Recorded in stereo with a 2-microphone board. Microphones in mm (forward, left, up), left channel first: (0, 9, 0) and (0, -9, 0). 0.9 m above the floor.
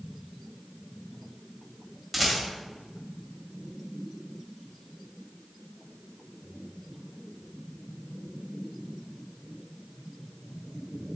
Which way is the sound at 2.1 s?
5° left (ahead or behind).